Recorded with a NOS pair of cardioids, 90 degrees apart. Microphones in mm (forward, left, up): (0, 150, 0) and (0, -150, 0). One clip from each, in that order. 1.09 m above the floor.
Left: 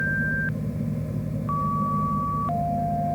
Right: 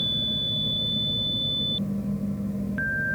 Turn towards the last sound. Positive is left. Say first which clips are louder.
# even
turn(degrees=55)